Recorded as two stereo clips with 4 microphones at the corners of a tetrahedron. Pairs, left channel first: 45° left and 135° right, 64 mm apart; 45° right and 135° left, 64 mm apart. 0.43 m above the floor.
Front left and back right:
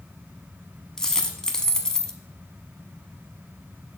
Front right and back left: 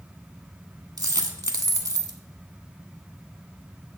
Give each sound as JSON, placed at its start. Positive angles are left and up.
{"t": 1.0, "sound": "a dropped coin", "azimuth_deg": 125, "distance_m": 0.7}